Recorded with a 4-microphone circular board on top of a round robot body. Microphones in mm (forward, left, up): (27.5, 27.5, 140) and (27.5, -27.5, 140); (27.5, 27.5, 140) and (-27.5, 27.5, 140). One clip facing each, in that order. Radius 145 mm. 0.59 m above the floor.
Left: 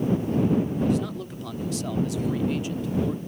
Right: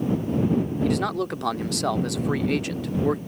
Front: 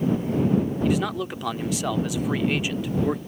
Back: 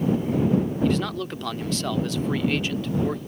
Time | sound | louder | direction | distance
0.8 | a man speaking | right 2 dB, even | 80° right | ?